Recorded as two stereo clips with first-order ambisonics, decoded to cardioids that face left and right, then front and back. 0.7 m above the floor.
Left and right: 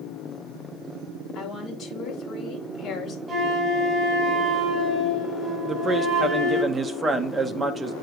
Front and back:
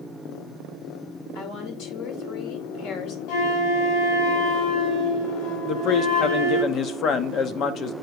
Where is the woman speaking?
25° left, 2 m.